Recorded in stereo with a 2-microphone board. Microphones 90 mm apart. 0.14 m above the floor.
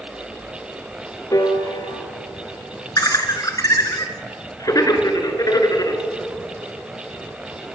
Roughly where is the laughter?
Left.